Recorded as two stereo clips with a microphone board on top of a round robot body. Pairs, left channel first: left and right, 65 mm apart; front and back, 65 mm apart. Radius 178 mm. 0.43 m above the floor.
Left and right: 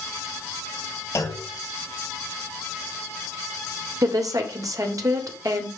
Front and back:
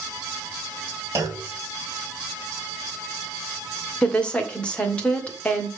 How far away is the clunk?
About 2.5 m.